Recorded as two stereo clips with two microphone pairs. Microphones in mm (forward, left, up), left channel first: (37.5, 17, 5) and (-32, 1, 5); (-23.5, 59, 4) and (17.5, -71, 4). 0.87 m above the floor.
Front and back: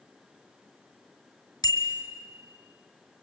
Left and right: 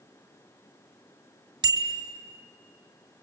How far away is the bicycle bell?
About 2.5 m.